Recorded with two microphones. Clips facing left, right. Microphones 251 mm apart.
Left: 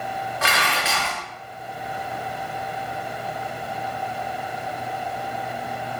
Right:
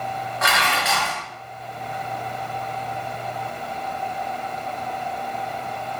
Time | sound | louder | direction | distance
0.4 | dishes clattering | right 2 dB | 30° left (ahead or behind) | 0.6 m